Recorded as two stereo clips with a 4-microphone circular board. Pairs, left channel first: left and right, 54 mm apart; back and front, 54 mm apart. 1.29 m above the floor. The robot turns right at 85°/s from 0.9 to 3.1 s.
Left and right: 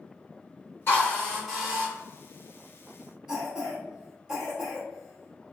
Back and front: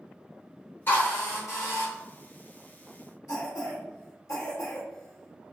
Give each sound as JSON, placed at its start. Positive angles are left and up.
{"t": 0.9, "sound": "a drill", "azimuth_deg": 135, "distance_m": 1.7}
{"t": 3.3, "sound": "a cough", "azimuth_deg": -160, "distance_m": 0.9}